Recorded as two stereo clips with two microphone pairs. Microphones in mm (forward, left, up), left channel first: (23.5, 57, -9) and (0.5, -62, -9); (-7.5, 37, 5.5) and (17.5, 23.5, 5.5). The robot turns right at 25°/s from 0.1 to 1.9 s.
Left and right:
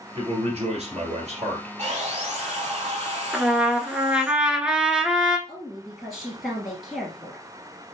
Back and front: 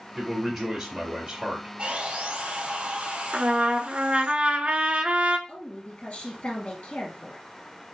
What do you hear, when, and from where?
0.1 s a man speaking: 120° right, 2 m; by 1.7 s 80° right, 2 m
1.8 s sawing: 75° right, 3 m; by 4.3 s 70° right, 3 m
3.3 s a trumpet: 20° right, 0.7 m
5.5 s a woman speaking: 170° left, 2 m